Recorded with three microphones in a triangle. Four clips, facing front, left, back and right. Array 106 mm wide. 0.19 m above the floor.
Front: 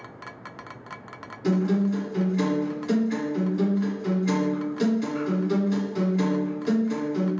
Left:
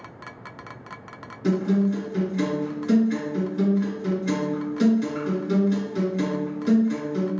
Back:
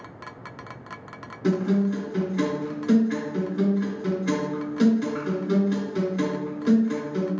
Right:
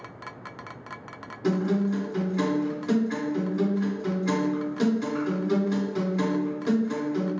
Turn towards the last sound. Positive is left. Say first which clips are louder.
# left 3 dB, even
turn(degrees=-125)